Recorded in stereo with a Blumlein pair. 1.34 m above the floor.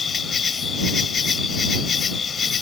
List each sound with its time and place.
0.0 s an insect: 20° left